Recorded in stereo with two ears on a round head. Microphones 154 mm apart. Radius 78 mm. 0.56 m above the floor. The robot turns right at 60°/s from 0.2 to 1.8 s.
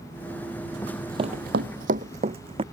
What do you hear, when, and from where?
0.8 s running footsteps: 15° left (ahead or behind); by 2.6 s 30° right (ahead or behind)